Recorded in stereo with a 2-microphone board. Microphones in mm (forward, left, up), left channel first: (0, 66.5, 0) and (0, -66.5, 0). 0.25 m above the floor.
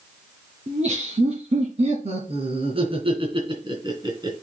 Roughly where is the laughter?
Right.